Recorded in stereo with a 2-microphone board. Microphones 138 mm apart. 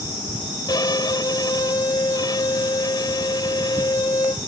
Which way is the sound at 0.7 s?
35° left (ahead or behind).